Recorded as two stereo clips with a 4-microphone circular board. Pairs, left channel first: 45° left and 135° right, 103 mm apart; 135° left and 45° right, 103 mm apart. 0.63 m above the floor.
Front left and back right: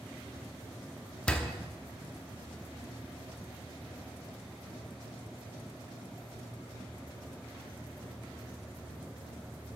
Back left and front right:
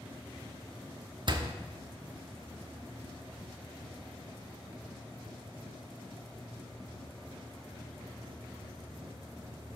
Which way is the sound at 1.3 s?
30° right.